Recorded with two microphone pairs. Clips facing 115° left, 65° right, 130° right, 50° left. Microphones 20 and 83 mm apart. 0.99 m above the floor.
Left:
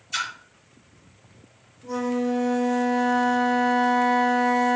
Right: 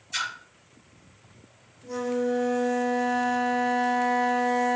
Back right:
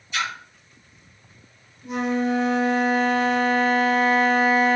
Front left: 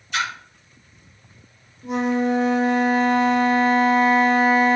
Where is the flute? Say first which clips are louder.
Left 2 dB, front left 2 dB; 65° left, 2 m.